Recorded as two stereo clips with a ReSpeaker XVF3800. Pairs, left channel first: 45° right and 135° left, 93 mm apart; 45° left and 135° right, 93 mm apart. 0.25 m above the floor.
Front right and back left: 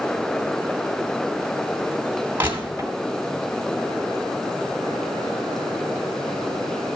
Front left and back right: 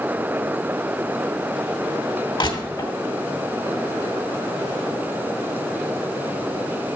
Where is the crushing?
70° left, 2.5 m.